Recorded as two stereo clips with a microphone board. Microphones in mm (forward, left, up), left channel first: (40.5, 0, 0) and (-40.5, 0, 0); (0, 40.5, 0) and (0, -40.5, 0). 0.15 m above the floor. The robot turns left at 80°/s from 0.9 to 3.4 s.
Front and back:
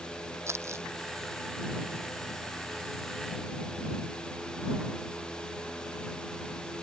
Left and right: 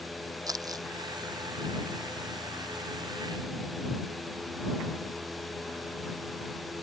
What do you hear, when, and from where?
0.5 s crumpling: 125° right